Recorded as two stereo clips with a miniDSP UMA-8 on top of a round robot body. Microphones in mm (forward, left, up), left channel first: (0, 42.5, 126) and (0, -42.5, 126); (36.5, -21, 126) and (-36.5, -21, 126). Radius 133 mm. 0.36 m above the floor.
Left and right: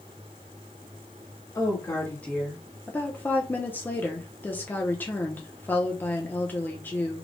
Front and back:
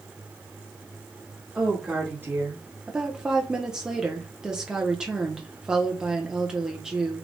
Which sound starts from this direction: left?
A woman speaking, at 1.6 s.